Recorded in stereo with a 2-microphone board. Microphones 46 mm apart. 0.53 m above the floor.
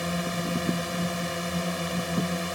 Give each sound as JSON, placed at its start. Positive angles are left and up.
{"t": 0.0, "sound": "a drone", "side_deg": -5}